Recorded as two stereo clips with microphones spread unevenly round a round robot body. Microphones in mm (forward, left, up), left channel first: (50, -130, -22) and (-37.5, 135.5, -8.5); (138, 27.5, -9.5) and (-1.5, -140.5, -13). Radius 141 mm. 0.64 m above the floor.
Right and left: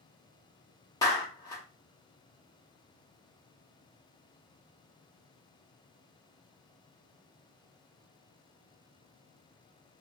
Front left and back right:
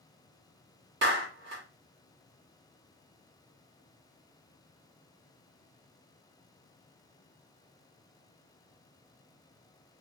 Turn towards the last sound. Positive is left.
turn(degrees=-145)